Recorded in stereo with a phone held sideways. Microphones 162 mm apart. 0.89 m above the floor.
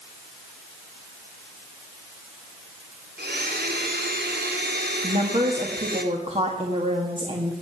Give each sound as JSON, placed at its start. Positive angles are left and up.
{"t": 3.2, "sound": "a blender", "side_deg": -80, "distance_m": 2.0}
{"t": 5.0, "sound": "a woman speaking", "side_deg": -35, "distance_m": 1.7}